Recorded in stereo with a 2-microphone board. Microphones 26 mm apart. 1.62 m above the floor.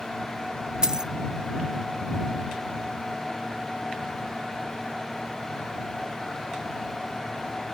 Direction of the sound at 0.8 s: 35° right (ahead or behind).